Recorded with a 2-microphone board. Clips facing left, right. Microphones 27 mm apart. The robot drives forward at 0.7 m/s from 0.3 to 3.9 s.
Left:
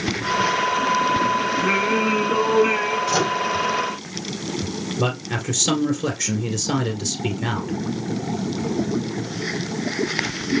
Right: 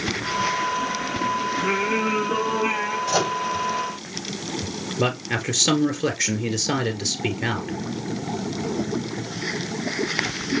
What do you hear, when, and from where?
1.6 s singing: centre (ahead or behind), 3.5 m
3.1 s a microwave: 10° left (ahead or behind), 4 m
5.0 s a man speaking: 20° right (ahead or behind), 1.4 m